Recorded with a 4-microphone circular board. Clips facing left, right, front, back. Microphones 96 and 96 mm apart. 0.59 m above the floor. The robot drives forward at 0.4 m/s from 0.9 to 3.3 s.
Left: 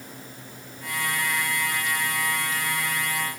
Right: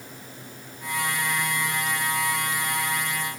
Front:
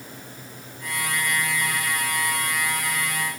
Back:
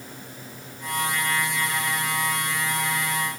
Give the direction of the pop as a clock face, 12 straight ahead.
I don't hear a pop.